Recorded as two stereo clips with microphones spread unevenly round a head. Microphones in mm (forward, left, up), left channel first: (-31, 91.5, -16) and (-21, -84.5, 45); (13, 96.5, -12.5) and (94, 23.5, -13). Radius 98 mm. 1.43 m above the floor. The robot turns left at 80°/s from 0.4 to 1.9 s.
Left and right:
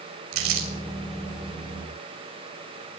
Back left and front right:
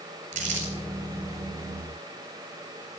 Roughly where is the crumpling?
Right.